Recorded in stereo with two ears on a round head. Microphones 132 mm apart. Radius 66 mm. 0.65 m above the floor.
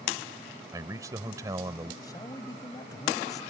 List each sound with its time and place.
0.7 s a man speaking: 25° right (ahead or behind)
2.0 s a man speaking: 25° left (ahead or behind)